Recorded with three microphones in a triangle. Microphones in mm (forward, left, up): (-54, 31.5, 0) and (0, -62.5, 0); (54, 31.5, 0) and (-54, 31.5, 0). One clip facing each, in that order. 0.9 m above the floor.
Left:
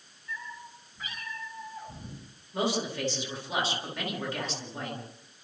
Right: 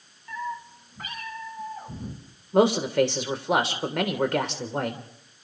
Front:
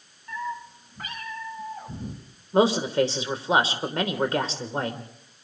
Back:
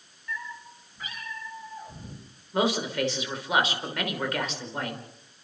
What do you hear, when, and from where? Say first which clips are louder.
0.3 s a cat meowing: right 9 dB, front 6 dB; 40° right, 4.5 m; by 2.2 s 15° right, 5 m
2.5 s a man speaking: right 10 dB, front 6 dB; 55° right, 3 m